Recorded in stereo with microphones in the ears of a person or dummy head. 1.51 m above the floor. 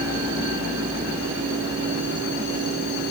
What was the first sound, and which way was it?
Only background noise.